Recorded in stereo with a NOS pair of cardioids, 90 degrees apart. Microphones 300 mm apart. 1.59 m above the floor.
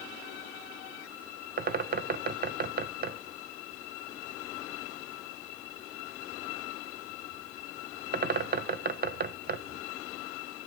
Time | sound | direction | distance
1.6 | a bird | 30° right | 0.8 m